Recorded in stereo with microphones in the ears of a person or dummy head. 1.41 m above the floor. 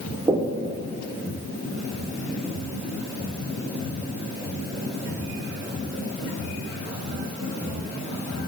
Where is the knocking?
20° right (ahead or behind), 1.1 m.